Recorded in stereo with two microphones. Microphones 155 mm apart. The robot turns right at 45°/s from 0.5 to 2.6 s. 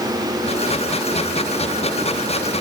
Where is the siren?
I don't hear a siren.